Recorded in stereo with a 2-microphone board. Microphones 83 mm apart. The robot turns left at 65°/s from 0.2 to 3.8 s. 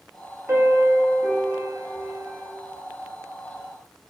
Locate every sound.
0.5 s a piano: 25° right (ahead or behind), 0.6 m; by 2.5 s 10° left (ahead or behind), 0.6 m